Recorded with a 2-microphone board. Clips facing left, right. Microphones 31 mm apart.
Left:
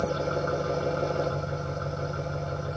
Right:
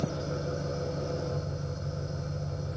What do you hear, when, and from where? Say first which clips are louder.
0.0 s an engine running: left 6 dB; 60° left (ahead or behind), 2.5 m